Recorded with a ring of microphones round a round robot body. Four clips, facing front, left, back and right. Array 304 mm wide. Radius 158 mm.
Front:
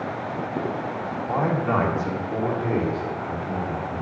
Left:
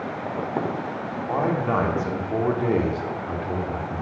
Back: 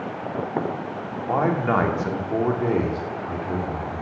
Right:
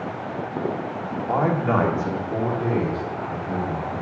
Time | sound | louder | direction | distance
1.3 | a man speaking | right 2 dB, back 2 dB | 140° right | 1.4 m